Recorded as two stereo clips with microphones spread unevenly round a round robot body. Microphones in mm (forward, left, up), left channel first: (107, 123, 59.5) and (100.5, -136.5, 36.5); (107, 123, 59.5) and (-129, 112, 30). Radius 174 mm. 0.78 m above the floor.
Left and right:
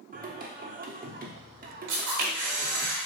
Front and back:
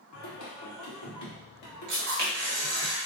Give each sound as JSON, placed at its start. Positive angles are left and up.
{"t": 0.1, "sound": "singing", "azimuth_deg": -30, "distance_m": 0.9}
{"t": 1.9, "sound": "a camera shutter", "azimuth_deg": -115, "distance_m": 1.0}